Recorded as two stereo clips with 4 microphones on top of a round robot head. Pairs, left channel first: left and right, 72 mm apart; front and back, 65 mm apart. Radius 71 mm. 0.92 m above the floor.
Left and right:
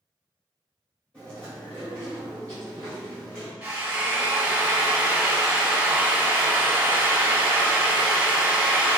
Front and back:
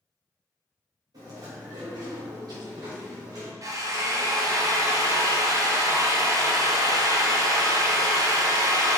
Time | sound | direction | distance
1.1 | chewing | 165° left | 3 m
3.6 | a drill | 165° right | 1.3 m